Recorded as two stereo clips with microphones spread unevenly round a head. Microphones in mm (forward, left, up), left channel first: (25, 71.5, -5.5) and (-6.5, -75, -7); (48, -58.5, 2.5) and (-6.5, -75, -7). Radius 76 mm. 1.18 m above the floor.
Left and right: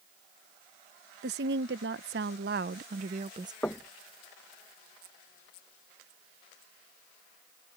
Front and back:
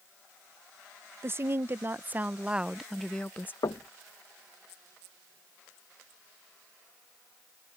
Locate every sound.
1.2 s a woman speaking: 125° right; by 3.5 s 40° right
3.6 s knocking: straight ahead